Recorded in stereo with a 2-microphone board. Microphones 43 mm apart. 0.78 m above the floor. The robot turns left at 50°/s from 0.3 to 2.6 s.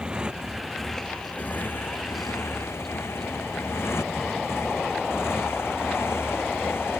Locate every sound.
0.0 s a motorcycle: 25° right (ahead or behind); by 7.0 s 75° left (ahead or behind)